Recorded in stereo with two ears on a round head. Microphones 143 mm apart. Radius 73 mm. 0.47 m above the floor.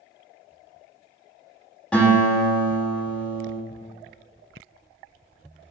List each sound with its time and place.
1.9 s a guitar: 5° left (ahead or behind), 1.5 m